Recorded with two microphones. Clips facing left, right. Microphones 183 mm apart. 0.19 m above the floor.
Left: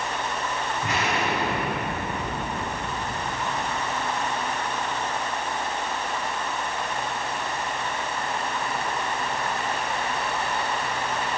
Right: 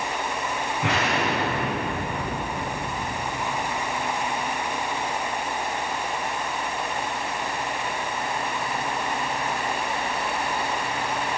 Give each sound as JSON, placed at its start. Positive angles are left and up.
{"t": 0.8, "sound": "an explosion", "side_deg": -75, "distance_m": 9.5}